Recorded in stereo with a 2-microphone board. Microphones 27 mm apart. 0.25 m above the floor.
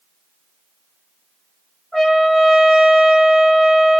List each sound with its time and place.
1.9 s a trumpet: centre (ahead or behind), 2.5 m